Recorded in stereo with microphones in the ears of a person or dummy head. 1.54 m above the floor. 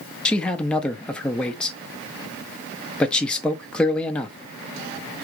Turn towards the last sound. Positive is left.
turn(degrees=5)  # may be behind; listen again after turning